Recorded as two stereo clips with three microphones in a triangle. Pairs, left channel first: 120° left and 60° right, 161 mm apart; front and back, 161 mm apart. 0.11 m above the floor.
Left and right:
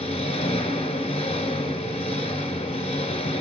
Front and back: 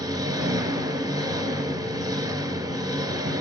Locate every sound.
0.0 s an engine running: 130° left, 1.5 m